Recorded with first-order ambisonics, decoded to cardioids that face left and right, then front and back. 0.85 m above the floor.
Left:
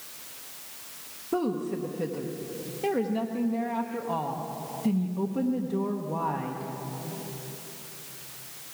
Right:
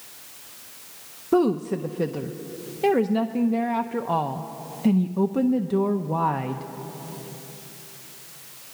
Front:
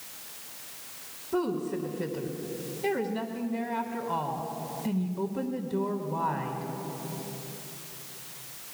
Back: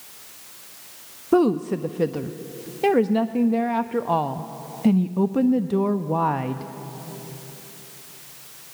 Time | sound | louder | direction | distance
1.3 | a woman speaking | right 7 dB, back 10 dB | 155° right | 0.6 m